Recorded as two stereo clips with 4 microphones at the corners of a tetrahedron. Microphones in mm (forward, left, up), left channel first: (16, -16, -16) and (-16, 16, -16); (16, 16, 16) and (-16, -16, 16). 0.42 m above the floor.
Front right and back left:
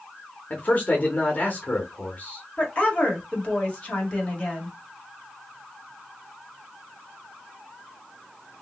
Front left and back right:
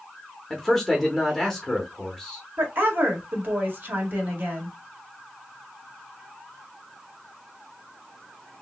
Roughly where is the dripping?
I don't hear dripping.